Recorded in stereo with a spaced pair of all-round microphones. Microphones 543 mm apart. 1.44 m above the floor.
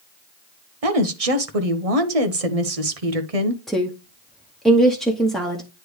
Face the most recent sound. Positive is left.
turn(degrees=0)  # may be behind; listen again after turning